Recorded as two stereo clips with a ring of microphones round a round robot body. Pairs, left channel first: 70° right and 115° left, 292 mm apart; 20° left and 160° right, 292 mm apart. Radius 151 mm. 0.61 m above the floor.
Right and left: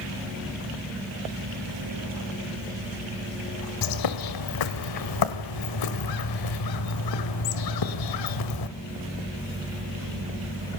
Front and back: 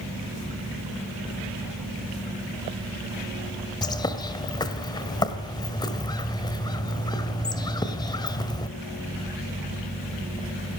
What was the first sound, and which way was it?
A bird, 55° right.